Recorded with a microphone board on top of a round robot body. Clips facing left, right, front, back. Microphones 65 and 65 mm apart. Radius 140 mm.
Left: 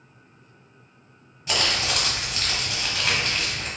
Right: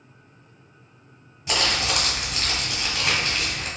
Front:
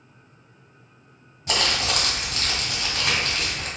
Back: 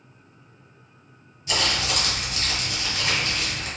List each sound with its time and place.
1.5 s crumpling: 10° right, 1.3 m